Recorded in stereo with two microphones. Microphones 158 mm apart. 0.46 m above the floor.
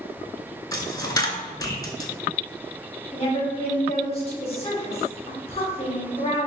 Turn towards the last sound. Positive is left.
turn(degrees=40)  # may be behind; listen again after turning